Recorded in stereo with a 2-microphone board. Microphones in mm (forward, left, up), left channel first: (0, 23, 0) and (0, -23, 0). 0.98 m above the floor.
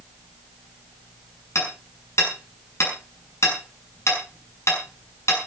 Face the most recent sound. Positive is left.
turn(degrees=90)